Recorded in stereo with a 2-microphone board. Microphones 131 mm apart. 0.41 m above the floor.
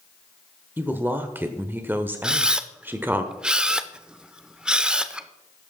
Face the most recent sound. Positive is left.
turn(degrees=-5)  # may be behind; listen again after turning